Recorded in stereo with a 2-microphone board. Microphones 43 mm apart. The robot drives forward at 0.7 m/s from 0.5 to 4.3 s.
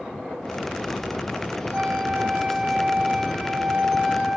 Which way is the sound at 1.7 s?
35° right (ahead or behind).